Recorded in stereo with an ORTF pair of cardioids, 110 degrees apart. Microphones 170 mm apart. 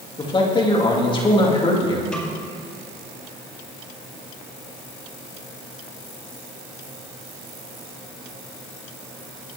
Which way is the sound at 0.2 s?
30° left.